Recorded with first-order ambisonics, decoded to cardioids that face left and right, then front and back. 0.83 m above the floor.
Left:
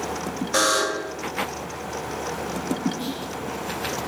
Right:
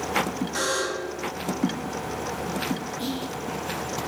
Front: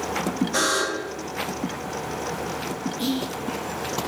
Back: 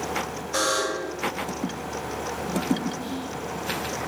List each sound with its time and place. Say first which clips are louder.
0.5 s a buzzer: left 7 dB, even; 90° left, 3 m
3.0 s whispering: even, front 5 dB; 5° right, 1.1 m